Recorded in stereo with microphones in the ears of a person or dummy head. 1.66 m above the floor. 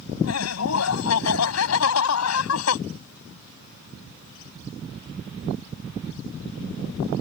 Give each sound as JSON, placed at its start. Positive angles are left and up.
{"t": 0.2, "sound": "laughter", "side_deg": 85}